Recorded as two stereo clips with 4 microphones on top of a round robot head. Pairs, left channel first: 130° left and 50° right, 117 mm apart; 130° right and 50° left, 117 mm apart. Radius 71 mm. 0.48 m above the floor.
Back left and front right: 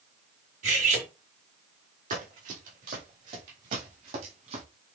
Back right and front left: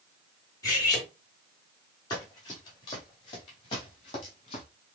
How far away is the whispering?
I don't hear whispering.